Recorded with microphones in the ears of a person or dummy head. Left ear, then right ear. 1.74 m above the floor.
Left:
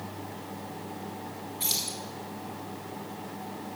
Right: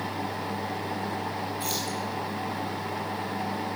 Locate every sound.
1.6 s keys jangling: 5° right (ahead or behind), 1.9 m